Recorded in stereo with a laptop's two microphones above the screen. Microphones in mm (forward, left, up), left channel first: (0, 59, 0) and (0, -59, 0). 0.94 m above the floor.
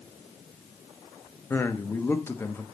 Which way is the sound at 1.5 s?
20° left (ahead or behind).